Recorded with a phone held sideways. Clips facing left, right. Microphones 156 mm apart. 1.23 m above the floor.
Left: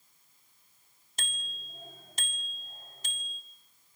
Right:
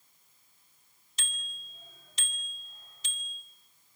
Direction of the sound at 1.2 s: 45° left (ahead or behind).